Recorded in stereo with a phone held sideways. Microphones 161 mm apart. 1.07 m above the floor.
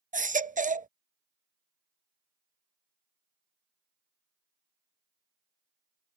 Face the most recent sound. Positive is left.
turn(degrees=-55)  # may be behind; listen again after turning